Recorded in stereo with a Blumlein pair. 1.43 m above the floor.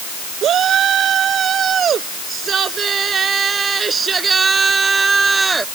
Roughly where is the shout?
Ahead right.